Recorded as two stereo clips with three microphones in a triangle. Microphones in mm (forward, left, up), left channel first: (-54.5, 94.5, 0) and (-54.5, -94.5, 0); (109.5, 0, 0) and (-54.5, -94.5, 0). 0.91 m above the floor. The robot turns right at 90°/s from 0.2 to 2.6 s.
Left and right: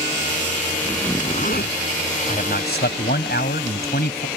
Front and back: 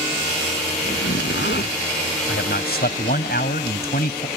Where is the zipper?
10° right; by 1.8 s 75° left.